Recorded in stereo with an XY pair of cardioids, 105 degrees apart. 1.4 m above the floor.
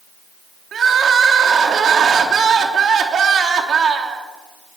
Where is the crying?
50° right, 3 m.